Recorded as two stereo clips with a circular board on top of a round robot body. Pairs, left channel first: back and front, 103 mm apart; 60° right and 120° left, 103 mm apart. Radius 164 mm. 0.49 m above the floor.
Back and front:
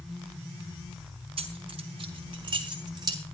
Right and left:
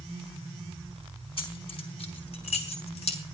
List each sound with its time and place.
1.4 s keys jangling: 25° right, 4 m; by 3.2 s 50° right, 3 m